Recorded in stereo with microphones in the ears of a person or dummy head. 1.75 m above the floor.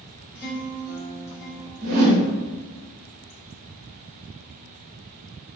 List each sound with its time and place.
0.3 s a guitar: 10° left (ahead or behind), 1.3 m
1.8 s a whoosh: 50° right (ahead or behind), 0.7 m